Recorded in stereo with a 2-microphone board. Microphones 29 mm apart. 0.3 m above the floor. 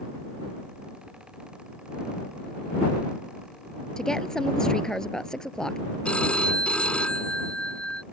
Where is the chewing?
I don't hear chewing.